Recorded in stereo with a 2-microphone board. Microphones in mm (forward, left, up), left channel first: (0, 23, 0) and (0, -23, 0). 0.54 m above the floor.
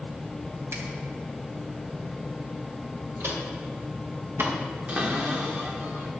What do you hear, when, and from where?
0.7 s a finger snap: 75° right (ahead or behind), 2.5 m
3.2 s footsteps: 65° right (ahead or behind), 4.5 m; by 4.5 s 75° right (ahead or behind), 4.5 m
4.9 s a cupboard door: 30° right (ahead or behind), 1.6 m